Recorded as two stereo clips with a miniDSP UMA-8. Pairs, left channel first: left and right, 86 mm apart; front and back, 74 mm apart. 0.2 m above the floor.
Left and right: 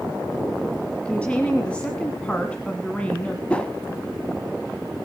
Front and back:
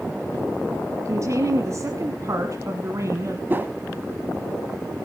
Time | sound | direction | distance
1.1 | a woman speaking | 160° left | 1.5 m
3.5 | a whoosh | 155° left | 1.1 m